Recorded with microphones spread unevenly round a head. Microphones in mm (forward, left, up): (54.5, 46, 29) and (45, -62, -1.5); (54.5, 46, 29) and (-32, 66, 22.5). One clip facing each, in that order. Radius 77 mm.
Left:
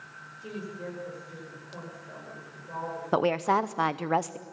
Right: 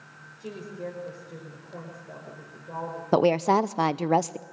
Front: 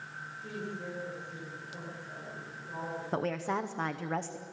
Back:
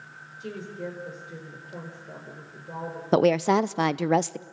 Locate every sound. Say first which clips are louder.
0.4 s a woman speaking: right 2 dB, back 5 dB; 165° right, 5 m
3.1 s a woman speaking: right 4 dB, back 13 dB; 165° right, 0.6 m